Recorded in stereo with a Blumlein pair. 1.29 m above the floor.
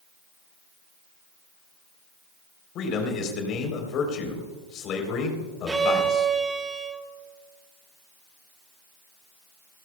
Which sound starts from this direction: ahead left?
A man speaking, at 2.8 s.